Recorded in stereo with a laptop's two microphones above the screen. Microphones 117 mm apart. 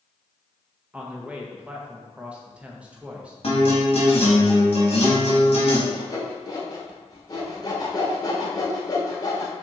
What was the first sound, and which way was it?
A man speaking, 10° right (ahead or behind).